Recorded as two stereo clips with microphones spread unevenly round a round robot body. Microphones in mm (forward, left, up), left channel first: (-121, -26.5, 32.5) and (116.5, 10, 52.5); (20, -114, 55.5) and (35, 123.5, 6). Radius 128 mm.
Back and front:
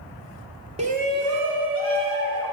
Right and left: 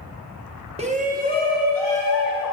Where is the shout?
65° left, 0.9 m; by 2.5 s 40° left, 3 m.